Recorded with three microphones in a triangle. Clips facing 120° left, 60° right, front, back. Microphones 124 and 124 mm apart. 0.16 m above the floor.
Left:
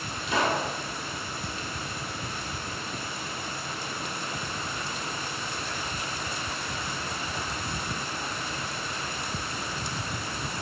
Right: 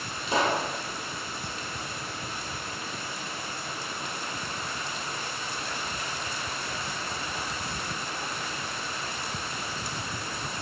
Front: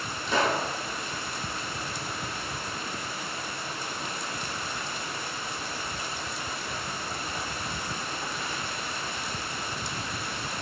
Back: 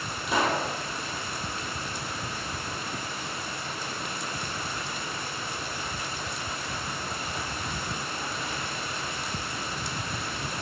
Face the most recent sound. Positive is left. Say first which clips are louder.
# right 1 dB, even
turn(degrees=-105)